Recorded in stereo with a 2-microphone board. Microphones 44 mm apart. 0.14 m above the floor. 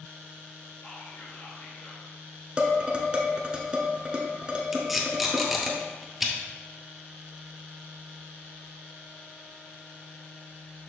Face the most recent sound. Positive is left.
turn(degrees=0)  # may be behind; listen again after turning